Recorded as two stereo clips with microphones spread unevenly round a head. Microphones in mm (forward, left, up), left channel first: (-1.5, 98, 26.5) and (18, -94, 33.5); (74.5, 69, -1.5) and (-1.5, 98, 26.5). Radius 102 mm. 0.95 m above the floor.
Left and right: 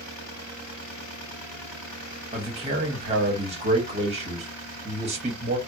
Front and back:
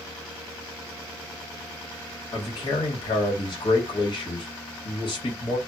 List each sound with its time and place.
2.3 s a man speaking: 25° right, 1.3 m